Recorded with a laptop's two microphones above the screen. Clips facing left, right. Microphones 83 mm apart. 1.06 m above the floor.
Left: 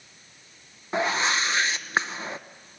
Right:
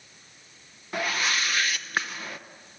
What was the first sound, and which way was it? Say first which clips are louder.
A whoosh: left 4 dB; 25° left (ahead or behind).